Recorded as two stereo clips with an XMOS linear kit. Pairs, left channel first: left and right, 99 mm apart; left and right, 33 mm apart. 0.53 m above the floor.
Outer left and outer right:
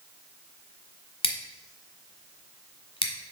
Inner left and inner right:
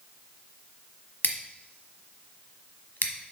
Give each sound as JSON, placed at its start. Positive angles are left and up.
{"t": 1.2, "sound": "scissors", "side_deg": 80, "distance_m": 1.0}